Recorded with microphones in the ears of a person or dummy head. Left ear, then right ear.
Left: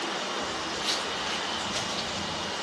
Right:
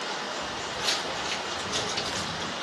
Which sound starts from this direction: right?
Footsteps, at 0.4 s.